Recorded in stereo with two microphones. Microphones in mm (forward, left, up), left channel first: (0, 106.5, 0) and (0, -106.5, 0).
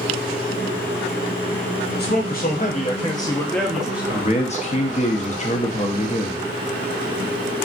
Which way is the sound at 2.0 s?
50° left (ahead or behind).